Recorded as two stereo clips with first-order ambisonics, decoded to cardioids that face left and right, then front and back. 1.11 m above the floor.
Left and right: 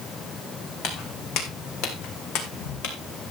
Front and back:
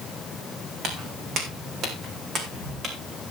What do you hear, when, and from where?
0.8 s footsteps: 130° left, 3 m; by 3.0 s 105° left, 3.5 m